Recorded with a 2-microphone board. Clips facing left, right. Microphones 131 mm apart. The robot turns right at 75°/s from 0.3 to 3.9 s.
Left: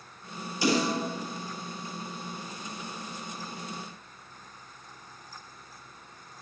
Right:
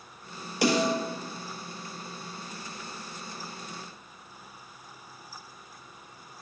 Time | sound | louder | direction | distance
0.6 | a snare drum | right 2 dB | 80° right | 4.5 m